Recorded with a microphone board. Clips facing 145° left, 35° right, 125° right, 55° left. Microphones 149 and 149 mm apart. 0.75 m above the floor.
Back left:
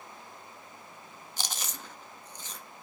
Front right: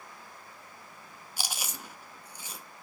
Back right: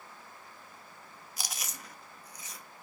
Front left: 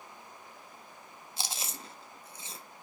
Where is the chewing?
35° left, 0.8 m.